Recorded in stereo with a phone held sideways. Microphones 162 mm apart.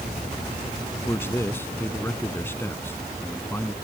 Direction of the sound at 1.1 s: 15° left (ahead or behind).